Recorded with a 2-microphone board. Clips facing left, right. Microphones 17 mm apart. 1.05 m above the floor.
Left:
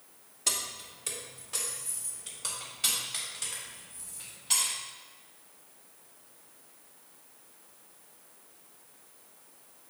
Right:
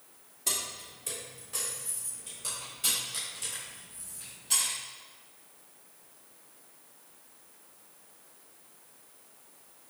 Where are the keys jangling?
30° left (ahead or behind), 1.4 m; by 4.7 s 40° left (ahead or behind), 4.5 m.